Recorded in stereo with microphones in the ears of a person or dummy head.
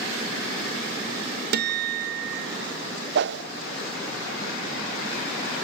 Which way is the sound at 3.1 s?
75° right (ahead or behind).